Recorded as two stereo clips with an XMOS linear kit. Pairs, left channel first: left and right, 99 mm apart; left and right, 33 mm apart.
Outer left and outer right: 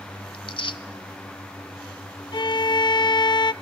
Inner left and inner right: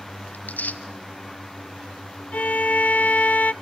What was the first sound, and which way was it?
Tearing paper, 65° left (ahead or behind).